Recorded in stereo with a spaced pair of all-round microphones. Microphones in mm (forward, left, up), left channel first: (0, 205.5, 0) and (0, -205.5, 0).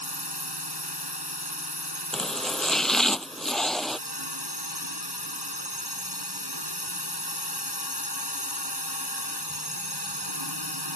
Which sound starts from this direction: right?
A drone, at 0.0 s.